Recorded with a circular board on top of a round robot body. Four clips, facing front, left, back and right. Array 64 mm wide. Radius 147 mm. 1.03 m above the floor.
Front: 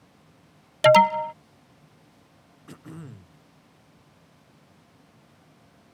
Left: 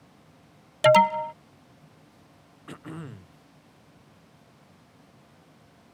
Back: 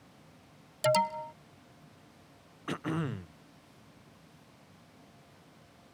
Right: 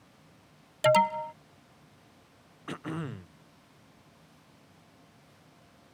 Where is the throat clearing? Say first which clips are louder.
Right 4 dB, back 9 dB; 160° right.